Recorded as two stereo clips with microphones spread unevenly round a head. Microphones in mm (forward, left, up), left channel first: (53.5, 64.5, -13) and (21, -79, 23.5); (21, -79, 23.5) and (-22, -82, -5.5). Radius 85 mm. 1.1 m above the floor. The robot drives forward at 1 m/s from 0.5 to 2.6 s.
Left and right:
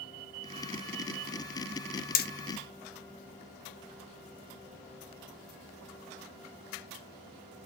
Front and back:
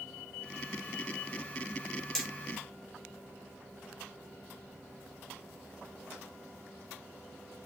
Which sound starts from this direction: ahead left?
Hammering, at 2.1 s.